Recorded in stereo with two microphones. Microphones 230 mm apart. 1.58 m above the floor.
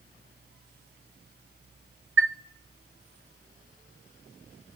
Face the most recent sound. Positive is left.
turn(degrees=-60)  # may be behind; listen again after turning